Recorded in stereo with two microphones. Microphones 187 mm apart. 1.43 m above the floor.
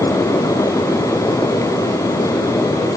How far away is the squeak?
I don't hear a squeak.